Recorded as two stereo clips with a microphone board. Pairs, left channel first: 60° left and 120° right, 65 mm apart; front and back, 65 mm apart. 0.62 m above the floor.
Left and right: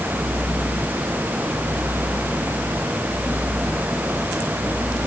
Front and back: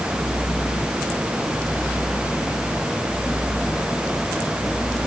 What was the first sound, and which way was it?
Only background noise.